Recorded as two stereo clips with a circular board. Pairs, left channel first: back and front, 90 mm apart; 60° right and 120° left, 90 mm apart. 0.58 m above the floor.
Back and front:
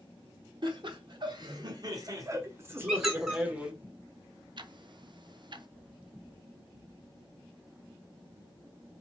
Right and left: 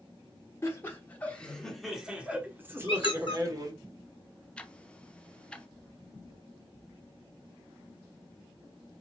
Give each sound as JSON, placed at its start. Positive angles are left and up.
{"t": 0.6, "sound": "laughter", "azimuth_deg": -5, "distance_m": 1.3}
{"t": 2.9, "sound": "a squeak", "azimuth_deg": -85, "distance_m": 1.7}
{"t": 4.6, "sound": "ticking", "azimuth_deg": 15, "distance_m": 0.5}